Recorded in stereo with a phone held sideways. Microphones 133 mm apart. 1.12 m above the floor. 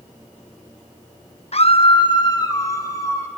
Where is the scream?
55° left (ahead or behind), 0.8 m; by 3.3 s 25° left (ahead or behind), 2.5 m.